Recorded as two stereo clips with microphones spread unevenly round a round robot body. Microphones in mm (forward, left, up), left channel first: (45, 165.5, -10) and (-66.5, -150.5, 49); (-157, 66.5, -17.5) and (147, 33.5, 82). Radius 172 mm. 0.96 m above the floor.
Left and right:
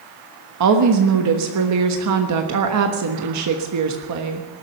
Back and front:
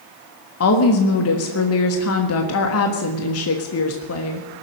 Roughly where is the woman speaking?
Behind right.